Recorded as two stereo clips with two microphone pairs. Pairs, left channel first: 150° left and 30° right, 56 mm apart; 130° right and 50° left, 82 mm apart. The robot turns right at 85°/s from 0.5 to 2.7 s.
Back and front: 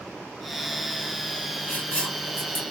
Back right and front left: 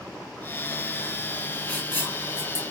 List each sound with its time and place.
1.7 s writing: 175° left, 1.5 m; by 2.6 s 110° right, 1.5 m